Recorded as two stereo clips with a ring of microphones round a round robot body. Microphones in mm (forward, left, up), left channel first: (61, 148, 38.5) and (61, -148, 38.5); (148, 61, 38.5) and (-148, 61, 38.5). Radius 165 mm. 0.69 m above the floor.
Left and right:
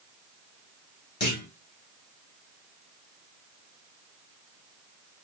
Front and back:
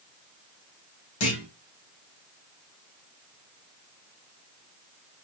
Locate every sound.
1.2 s a clunk: 35° left, 3.5 m